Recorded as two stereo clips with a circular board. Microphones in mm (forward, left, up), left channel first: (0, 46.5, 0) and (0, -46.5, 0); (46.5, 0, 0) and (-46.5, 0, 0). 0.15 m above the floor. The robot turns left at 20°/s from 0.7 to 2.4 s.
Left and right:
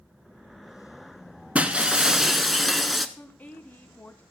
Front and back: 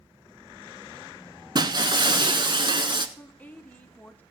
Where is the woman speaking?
45° left, 1.2 m.